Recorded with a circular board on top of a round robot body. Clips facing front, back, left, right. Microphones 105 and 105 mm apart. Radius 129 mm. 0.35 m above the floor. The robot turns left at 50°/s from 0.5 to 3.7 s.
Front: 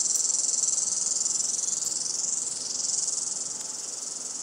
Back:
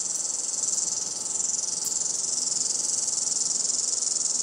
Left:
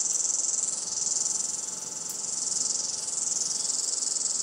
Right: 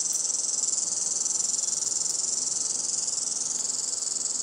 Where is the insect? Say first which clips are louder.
Back 1 dB, even; 20° right, 0.8 m; by 4.5 s straight behind, 0.8 m.